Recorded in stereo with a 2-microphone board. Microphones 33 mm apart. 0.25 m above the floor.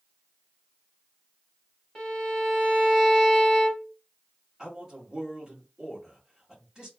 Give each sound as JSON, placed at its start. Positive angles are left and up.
{"t": 1.9, "sound": "a violin", "side_deg": 10, "distance_m": 1.3}
{"t": 4.6, "sound": "a man speaking", "side_deg": -15, "distance_m": 1.6}